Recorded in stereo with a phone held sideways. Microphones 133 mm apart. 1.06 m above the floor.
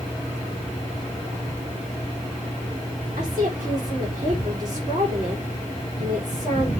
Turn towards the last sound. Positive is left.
turn(degrees=-75)  # may be behind; listen again after turning